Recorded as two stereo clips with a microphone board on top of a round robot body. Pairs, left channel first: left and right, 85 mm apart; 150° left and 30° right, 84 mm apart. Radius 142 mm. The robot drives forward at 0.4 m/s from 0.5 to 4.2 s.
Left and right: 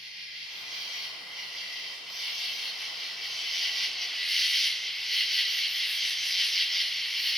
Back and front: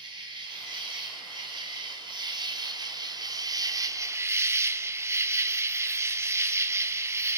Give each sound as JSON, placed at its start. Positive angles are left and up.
{"t": 0.0, "sound": "an insect", "azimuth_deg": 0, "distance_m": 1.8}